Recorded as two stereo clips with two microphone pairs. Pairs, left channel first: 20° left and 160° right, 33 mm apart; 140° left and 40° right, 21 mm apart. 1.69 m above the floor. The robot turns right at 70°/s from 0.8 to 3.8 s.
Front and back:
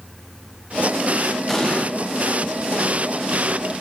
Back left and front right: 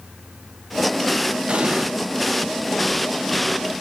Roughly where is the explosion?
Ahead right.